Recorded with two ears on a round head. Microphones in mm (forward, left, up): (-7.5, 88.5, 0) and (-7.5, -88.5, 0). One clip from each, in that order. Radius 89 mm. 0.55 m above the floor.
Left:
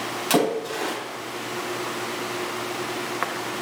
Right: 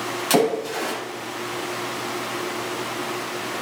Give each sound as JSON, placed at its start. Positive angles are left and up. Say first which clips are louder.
{"t": 0.3, "sound": "a splash", "louder": "right 2 dB", "side_deg": -5, "distance_m": 4.0}